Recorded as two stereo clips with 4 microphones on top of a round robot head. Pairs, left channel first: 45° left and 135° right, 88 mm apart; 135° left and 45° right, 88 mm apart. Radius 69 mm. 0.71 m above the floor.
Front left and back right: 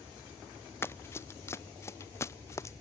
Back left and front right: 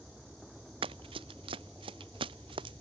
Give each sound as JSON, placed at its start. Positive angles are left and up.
{"t": 0.8, "sound": "running footsteps", "azimuth_deg": -20}